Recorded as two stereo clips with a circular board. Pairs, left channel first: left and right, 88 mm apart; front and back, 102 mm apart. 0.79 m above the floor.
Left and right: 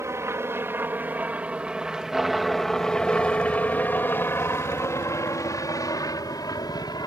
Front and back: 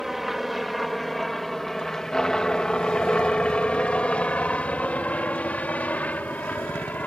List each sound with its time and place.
0.0 s a helicopter: 95° right; by 7.1 s 70° left